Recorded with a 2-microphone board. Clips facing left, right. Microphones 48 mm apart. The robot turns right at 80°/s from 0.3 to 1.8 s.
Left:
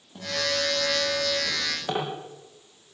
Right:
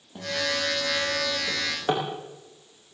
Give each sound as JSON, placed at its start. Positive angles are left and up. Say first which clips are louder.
{"t": 0.1, "sound": "a guitar", "louder": "even", "azimuth_deg": -10, "distance_m": 10.0}
{"t": 1.5, "sound": "a drawer", "louder": "right 2 dB", "side_deg": 5, "distance_m": 8.5}